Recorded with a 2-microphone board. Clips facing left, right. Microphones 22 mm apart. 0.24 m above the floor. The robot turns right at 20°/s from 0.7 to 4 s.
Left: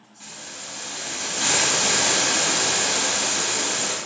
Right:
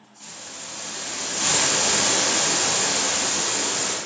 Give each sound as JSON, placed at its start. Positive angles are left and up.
{"t": 0.2, "sound": "a hiss", "azimuth_deg": 30, "distance_m": 0.7}